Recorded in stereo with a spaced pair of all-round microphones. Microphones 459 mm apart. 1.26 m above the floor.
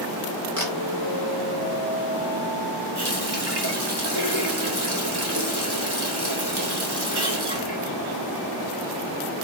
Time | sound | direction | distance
0.6 | a camera shutter | 40° right (ahead or behind) | 4.5 m
3.0 | a running tap | 55° right (ahead or behind) | 3 m